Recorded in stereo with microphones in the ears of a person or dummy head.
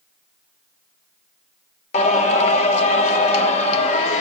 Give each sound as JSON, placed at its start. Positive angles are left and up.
{"t": 1.9, "sound": "singing", "side_deg": 45, "distance_m": 1.0}